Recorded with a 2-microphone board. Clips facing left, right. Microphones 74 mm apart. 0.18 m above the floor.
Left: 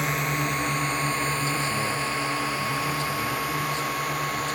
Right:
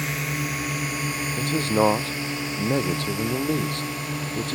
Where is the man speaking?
65° right (ahead or behind).